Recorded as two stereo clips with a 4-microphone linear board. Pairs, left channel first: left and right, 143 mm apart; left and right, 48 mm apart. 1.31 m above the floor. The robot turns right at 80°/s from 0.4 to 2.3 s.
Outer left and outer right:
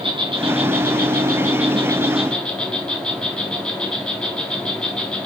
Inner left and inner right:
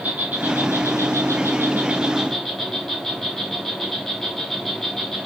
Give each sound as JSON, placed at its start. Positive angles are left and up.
{"t": 0.0, "sound": "an insect", "azimuth_deg": -145, "distance_m": 3.0}